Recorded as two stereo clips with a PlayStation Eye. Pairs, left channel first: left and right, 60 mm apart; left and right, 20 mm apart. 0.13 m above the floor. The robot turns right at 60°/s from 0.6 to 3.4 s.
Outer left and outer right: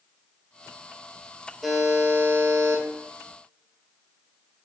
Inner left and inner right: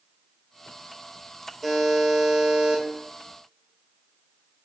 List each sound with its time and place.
1.6 s a buzzer: 175° left, 3 m; by 2.8 s 110° right, 3 m